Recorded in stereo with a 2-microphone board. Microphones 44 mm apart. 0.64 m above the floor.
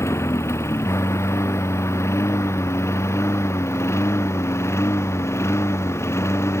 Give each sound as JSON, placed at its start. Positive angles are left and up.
{"t": 0.0, "sound": "a lawn mower", "side_deg": 85}